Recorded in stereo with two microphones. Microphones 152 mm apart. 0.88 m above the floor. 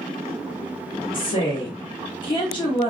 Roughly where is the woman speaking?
Left.